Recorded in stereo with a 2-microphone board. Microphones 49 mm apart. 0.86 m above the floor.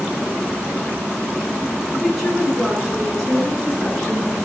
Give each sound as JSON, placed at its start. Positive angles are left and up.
{"t": 1.9, "sound": "a woman speaking", "side_deg": 0, "distance_m": 8.5}